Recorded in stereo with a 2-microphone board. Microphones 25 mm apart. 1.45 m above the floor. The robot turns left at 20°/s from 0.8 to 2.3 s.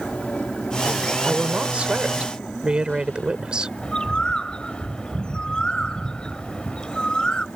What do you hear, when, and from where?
0.0 s an aircraft: 60° left (ahead or behind)
1.2 s a woman speaking: 60° right (ahead or behind); by 3.7 s 40° right (ahead or behind)
3.8 s a bird: 35° left (ahead or behind)